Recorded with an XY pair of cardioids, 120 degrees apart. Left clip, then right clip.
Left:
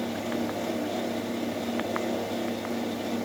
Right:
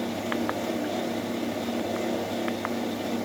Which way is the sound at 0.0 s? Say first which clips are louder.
Right 2 dB; 5° right.